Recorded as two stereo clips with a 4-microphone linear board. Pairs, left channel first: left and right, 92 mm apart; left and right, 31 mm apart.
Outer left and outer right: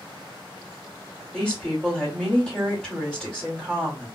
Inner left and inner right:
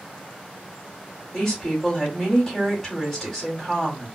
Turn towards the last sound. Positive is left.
turn(degrees=10)  # may be behind; listen again after turning